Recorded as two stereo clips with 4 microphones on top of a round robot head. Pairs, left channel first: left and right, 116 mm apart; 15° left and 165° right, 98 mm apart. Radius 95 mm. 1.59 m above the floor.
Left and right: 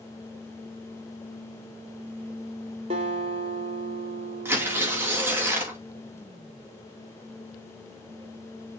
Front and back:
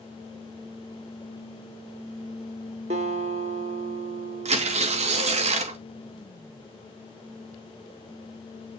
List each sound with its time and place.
2.9 s a guitar: 140° right, 2.5 m
4.5 s tearing paper: 165° right, 2.5 m